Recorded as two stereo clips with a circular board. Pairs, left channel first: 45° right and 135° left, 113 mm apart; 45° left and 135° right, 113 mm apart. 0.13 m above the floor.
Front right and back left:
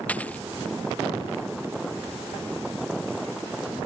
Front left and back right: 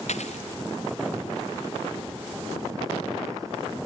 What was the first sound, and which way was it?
A dropped coin, 35° left.